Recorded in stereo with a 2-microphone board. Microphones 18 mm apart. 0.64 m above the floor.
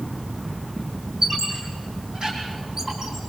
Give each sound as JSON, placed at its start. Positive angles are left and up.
{"t": 1.2, "sound": "a squeak", "side_deg": -35, "distance_m": 6.0}